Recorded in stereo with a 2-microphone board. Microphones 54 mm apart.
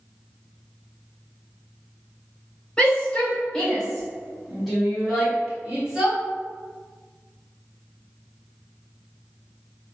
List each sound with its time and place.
2.8 s a shout: 20° left (ahead or behind), 1.6 m; by 6.2 s 15° right (ahead or behind), 1.5 m